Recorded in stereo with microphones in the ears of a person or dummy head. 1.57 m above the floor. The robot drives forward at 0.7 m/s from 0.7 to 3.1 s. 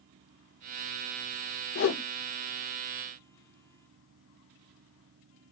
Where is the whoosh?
55° left (ahead or behind), 1.0 m.